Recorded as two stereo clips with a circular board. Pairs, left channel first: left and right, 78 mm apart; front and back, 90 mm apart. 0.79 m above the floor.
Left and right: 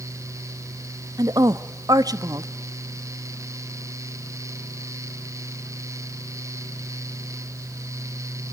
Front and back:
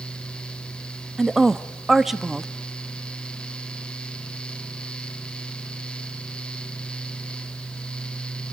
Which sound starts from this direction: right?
A woman speaking, at 1.2 s.